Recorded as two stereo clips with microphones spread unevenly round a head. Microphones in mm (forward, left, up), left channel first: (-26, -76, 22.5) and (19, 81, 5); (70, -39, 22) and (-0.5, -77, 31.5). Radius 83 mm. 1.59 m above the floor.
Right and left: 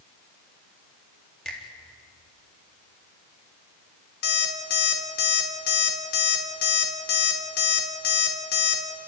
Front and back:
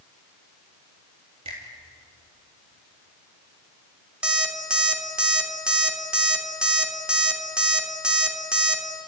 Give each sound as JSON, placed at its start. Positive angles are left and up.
{"t": 1.4, "sound": "a finger snap", "azimuth_deg": 170, "distance_m": 3.5}
{"t": 4.2, "sound": "an alarm clock", "azimuth_deg": -75, "distance_m": 3.0}